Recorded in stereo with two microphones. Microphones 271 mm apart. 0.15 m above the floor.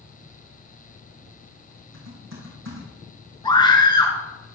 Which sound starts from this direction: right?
Typing on a keyboard, at 1.9 s.